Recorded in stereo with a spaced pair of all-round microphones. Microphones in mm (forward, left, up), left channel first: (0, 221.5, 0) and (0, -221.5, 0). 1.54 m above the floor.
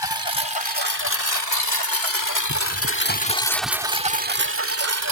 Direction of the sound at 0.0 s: 60° left (ahead or behind).